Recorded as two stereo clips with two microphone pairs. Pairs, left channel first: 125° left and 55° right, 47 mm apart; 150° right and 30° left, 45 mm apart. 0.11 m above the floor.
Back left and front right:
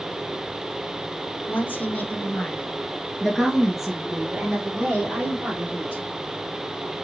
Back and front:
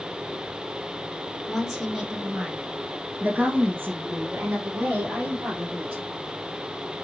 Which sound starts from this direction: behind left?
A woman speaking, at 1.5 s.